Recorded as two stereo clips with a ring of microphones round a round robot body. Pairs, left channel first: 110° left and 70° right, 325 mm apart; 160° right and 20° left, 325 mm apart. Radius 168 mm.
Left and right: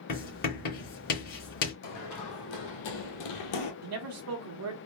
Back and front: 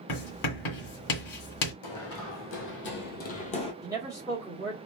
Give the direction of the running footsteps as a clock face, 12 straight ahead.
7 o'clock.